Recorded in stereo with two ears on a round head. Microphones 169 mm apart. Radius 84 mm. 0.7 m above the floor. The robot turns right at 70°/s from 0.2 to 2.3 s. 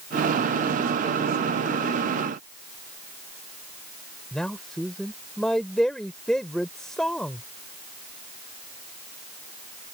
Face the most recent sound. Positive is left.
turn(degrees=5)  # may be behind; listen again after turning